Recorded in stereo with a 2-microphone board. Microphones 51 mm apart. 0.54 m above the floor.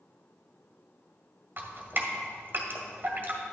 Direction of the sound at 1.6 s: 45° right (ahead or behind).